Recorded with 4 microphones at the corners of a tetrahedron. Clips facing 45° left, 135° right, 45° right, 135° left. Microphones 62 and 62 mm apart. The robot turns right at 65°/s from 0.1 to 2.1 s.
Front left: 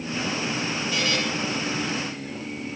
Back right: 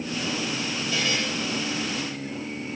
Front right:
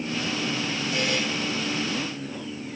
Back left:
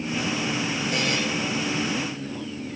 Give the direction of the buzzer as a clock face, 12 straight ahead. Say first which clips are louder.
Even, even; 8 o'clock.